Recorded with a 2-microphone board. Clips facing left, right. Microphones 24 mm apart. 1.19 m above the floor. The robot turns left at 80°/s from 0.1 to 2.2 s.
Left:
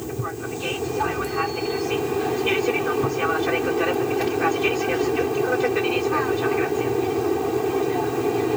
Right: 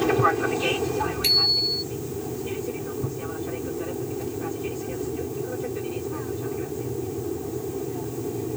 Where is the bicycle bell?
90° right; by 1.8 s 140° right.